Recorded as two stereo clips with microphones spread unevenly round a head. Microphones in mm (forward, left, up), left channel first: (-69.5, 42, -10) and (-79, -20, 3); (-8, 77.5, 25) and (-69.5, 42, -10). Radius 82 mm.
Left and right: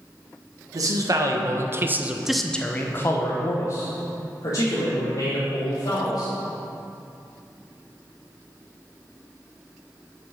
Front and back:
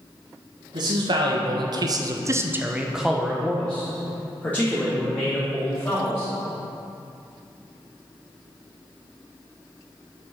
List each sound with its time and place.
0.7 s a man speaking: 125° right, 1.7 m; by 6.3 s 95° left, 4 m